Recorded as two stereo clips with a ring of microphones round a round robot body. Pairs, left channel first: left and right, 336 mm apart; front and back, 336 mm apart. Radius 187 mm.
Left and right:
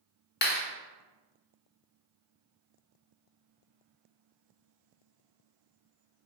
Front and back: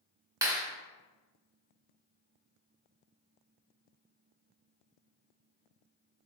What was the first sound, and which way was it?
A clap, 110° left.